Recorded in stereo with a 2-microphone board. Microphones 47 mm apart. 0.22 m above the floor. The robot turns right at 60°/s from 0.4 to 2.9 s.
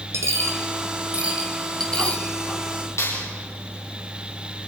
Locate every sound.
0.1 s a dropped coin: 75° right (ahead or behind), 3 m; by 2.2 s 35° left (ahead or behind), 3 m
3.0 s a clap: 80° left, 5 m